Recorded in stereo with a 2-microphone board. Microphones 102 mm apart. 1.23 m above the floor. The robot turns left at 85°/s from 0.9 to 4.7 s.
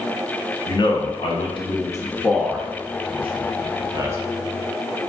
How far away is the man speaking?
About 0.6 m.